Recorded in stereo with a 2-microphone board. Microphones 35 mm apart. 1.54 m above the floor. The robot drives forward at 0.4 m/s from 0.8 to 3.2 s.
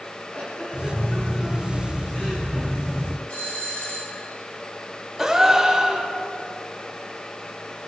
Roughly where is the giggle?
Left.